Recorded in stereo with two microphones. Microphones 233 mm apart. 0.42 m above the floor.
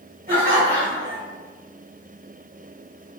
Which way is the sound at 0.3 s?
45° right (ahead or behind).